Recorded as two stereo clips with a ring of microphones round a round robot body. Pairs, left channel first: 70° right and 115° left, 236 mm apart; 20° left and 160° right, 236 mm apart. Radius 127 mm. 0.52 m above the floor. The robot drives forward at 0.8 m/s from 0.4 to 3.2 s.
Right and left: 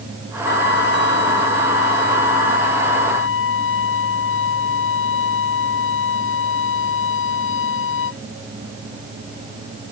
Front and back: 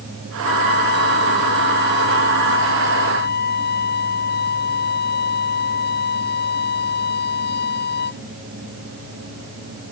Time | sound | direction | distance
0.4 | a trumpet | 25° right | ?